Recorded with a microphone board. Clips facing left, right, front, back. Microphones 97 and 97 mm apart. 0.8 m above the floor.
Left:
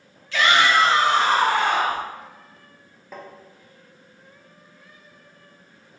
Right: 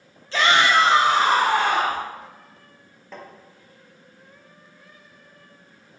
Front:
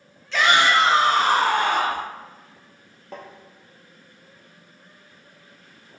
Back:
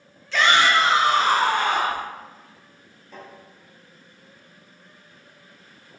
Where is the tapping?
5° left, 0.5 m.